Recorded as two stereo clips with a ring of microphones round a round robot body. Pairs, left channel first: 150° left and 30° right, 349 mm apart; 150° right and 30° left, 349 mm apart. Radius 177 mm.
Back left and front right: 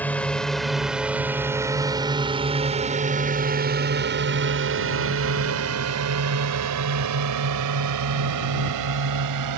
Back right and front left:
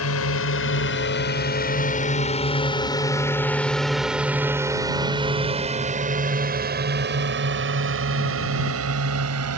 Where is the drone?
125° right; by 9.6 s 10° right.